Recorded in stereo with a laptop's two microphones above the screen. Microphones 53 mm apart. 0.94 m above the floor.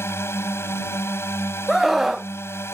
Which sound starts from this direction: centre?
A scream, at 1.7 s.